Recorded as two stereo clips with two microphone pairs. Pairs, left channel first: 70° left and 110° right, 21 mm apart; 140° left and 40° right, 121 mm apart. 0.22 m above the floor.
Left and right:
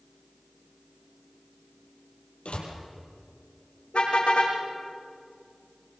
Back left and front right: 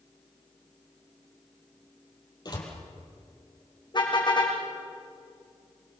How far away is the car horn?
About 6 m.